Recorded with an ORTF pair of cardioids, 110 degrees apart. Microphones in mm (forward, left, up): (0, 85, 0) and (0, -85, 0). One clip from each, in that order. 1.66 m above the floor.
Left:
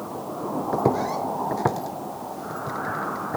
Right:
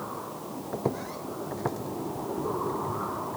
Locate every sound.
0.7 s footsteps: 35° left; by 3.4 s 65° left